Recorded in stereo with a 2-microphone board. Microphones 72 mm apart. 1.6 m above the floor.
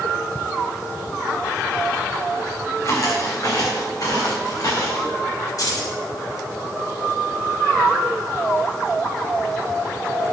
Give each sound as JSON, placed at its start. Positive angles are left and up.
{"t": 2.8, "sound": "footsteps", "side_deg": 50, "distance_m": 6.5}
{"t": 5.6, "sound": "keys jangling", "side_deg": 55, "distance_m": 7.0}